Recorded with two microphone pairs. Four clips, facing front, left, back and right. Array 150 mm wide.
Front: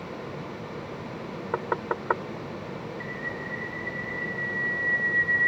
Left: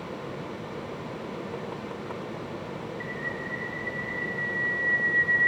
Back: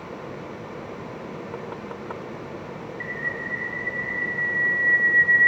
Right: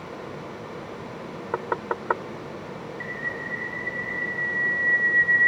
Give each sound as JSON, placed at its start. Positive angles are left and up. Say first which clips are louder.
{"t": 1.5, "sound": "knocking", "louder": "right 7 dB, front 5 dB", "azimuth_deg": -55}
{"t": 3.0, "sound": "a bird", "louder": "right 1 dB, back 3 dB", "azimuth_deg": -165}